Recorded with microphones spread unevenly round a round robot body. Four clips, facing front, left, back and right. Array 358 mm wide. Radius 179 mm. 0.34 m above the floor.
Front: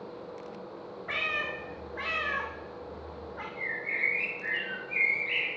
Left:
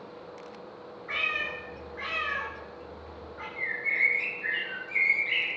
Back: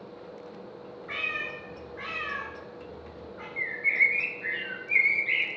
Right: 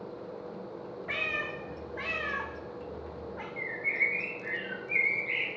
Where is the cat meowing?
85° right, 0.6 m.